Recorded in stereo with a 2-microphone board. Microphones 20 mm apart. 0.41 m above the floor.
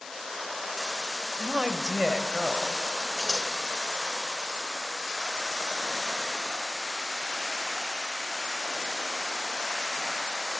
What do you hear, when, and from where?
1.4 s a woman speaking: 55° right (ahead or behind), 1.8 m; by 2.8 s 25° right (ahead or behind), 2.5 m
3.2 s scissors: 25° left (ahead or behind), 2 m